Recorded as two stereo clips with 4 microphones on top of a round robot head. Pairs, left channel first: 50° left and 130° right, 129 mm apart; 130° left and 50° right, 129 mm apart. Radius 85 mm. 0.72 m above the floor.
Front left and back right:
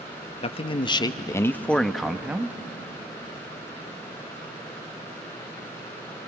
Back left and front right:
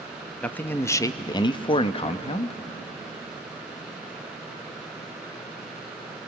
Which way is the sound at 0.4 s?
50° left.